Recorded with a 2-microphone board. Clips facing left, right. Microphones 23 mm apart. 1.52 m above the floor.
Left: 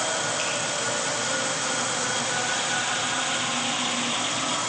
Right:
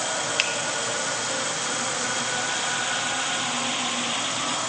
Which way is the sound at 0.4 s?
55° right (ahead or behind).